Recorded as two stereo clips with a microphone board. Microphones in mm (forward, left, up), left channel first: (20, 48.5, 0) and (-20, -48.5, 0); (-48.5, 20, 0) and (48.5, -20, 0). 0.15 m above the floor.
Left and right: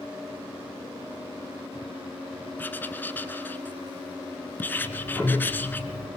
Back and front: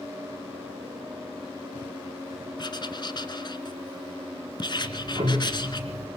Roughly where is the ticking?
Ahead right.